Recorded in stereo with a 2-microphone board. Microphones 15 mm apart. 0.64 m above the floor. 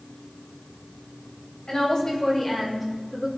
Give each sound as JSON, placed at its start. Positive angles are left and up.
{"t": 1.7, "sound": "a woman speaking", "side_deg": 50, "distance_m": 2.5}